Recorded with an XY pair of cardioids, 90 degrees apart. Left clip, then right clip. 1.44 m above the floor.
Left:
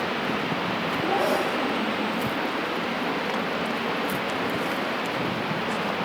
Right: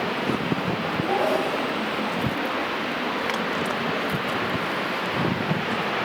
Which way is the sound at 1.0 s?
20° right.